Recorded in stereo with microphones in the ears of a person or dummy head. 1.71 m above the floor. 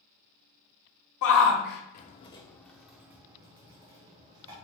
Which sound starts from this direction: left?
A shout, at 1.2 s.